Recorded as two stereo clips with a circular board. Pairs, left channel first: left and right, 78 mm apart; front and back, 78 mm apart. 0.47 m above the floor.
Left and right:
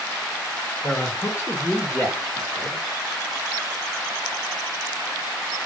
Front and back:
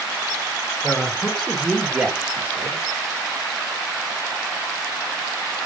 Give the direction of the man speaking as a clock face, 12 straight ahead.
10 o'clock.